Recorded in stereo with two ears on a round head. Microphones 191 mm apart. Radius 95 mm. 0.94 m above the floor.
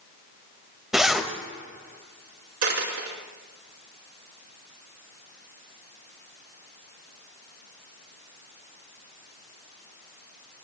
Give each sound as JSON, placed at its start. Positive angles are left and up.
{"t": 0.9, "sound": "a zipper", "side_deg": 0, "distance_m": 1.9}
{"t": 2.6, "sound": "a dropped coin", "side_deg": -80, "distance_m": 4.0}